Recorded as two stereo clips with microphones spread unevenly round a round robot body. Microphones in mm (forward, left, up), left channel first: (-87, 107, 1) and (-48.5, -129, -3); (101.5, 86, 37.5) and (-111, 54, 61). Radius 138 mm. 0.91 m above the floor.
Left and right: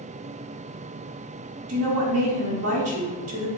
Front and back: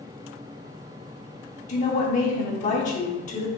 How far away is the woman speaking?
About 1.7 m.